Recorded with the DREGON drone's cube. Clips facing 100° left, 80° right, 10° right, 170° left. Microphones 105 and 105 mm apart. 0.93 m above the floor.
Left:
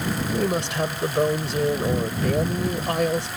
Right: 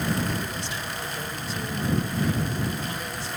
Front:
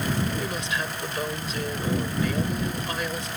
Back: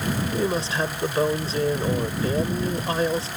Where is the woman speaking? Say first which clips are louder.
Left 8 dB, back 5 dB; 115° left.